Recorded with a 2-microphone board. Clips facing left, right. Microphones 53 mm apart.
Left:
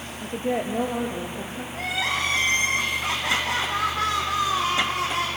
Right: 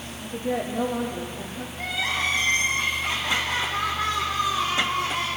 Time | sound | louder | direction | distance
0.2 | a woman speaking | left 2 dB | 45° left (ahead or behind) | 3 m
1.7 | crying | left 1 dB | 80° left | 5 m